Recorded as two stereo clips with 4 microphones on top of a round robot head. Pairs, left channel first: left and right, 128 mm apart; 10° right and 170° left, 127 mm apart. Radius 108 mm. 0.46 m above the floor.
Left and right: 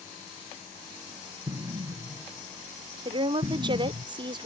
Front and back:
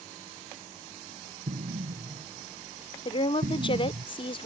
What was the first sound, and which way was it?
An explosion, 150° right.